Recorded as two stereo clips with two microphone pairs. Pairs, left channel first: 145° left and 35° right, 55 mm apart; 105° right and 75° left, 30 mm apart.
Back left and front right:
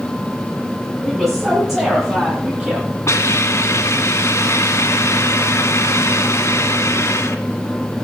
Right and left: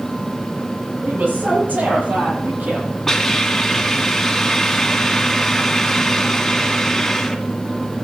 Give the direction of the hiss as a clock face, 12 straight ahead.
6 o'clock.